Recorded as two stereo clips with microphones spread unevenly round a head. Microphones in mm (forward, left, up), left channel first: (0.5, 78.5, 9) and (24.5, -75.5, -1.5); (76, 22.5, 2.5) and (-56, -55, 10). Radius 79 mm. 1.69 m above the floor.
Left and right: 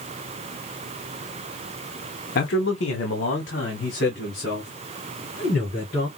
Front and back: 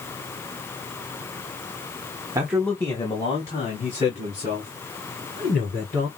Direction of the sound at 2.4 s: 140° left.